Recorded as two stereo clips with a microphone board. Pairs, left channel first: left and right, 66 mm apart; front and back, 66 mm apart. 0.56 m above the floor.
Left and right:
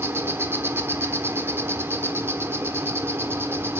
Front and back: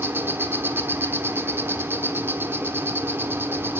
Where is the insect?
135° right, 1.2 m.